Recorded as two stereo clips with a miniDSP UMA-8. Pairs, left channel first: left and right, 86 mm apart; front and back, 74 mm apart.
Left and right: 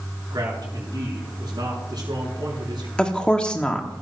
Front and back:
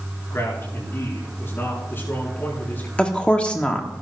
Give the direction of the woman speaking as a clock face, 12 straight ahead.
11 o'clock.